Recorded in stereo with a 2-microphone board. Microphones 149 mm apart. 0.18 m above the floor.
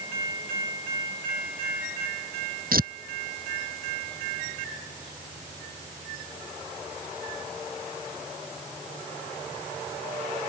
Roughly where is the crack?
I don't hear a crack.